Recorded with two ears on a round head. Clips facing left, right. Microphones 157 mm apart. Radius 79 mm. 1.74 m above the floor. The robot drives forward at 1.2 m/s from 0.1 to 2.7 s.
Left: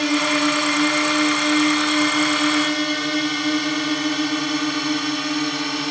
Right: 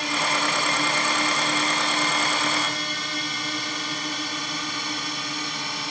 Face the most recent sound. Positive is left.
turn(degrees=55)  # may be behind; listen again after turning